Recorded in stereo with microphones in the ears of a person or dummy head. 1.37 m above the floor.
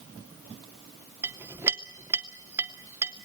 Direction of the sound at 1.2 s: 15° right (ahead or behind).